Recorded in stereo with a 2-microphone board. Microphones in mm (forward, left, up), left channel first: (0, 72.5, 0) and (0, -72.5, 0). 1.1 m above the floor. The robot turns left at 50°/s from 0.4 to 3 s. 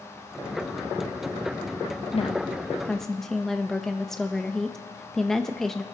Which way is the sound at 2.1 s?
45° left.